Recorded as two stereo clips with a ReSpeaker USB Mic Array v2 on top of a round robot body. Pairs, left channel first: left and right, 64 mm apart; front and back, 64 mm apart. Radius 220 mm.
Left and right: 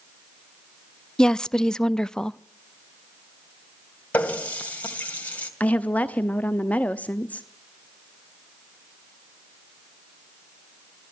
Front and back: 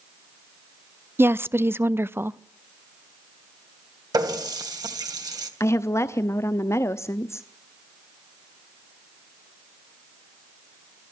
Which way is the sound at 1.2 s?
165° left.